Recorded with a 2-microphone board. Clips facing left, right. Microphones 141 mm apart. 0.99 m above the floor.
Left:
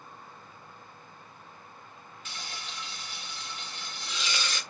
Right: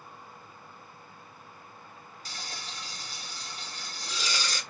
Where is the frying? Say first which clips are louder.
Even; 35° right (ahead or behind), 0.6 m.